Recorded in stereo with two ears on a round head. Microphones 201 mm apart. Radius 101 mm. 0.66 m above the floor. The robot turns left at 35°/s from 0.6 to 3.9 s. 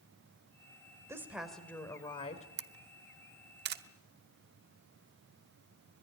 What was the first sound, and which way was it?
A woman speaking, 165° right.